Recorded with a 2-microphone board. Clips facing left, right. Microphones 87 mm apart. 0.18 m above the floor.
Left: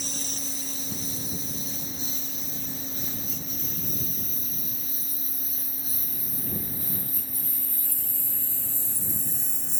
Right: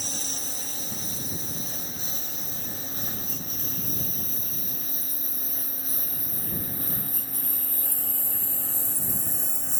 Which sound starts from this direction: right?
A lawn mower, at 0.0 s.